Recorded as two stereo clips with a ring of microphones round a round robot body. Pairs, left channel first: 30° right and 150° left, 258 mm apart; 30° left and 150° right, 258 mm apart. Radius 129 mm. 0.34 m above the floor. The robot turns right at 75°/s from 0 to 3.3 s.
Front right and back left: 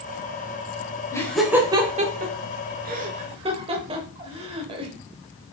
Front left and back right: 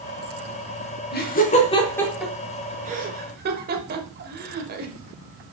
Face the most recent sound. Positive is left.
turn(degrees=-155)